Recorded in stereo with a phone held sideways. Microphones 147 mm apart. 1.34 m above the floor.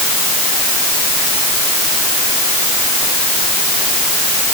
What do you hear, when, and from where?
Only background noise.